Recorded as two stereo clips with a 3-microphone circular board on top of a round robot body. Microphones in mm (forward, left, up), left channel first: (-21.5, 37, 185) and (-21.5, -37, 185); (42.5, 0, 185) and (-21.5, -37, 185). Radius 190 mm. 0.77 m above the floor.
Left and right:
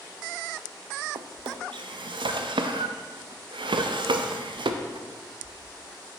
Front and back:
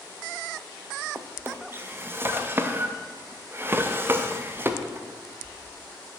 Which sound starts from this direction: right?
A drawer, at 1.1 s.